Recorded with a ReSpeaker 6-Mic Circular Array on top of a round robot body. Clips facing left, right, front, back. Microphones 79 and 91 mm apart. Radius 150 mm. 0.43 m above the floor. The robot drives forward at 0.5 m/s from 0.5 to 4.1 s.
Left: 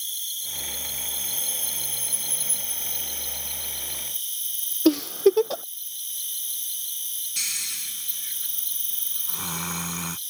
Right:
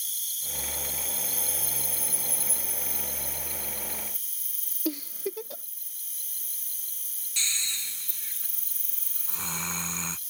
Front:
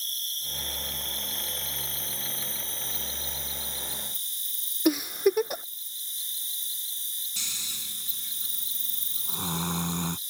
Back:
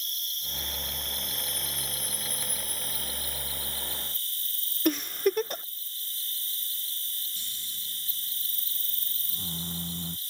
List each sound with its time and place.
0.0 s an insect: 55° left; by 10.3 s 70° left
4.8 s a giggle: 80° left
7.4 s snoring: 10° left